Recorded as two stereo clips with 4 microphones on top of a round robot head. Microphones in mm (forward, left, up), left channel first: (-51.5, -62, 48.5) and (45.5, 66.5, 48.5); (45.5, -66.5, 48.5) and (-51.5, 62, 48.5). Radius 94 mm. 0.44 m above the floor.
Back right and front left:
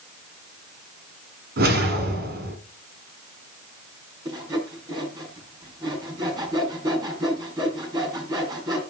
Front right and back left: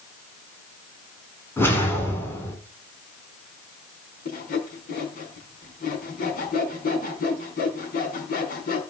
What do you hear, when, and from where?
1.6 s a whoosh: 25° left, 3 m
4.2 s sawing: 15° right, 4 m